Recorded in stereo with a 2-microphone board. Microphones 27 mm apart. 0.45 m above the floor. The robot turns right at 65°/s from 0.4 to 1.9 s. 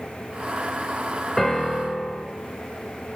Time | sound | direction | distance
1.4 | a piano | 15° left | 0.9 m